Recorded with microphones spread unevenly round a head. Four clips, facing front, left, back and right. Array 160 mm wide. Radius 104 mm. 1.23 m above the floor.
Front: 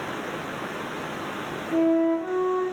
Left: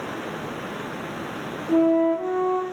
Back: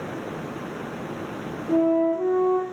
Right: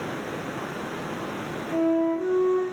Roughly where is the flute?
Behind.